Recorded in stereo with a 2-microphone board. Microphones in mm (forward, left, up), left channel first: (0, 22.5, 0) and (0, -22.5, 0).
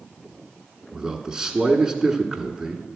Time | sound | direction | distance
0.9 | a man speaking | 10° right (ahead or behind) | 1.1 m